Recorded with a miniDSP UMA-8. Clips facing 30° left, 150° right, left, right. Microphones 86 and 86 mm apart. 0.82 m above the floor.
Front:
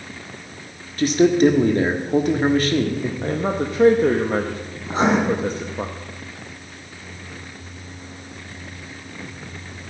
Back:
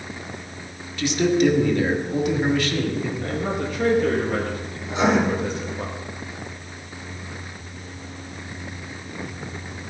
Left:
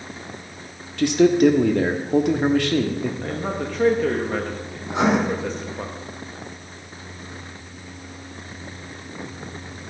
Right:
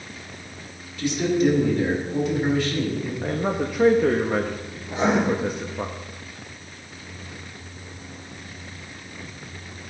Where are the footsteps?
No footsteps in this recording.